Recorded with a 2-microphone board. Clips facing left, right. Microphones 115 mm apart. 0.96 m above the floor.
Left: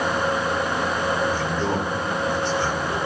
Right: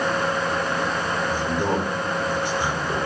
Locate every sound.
1.3 s a man speaking: 15° right (ahead or behind), 2.5 m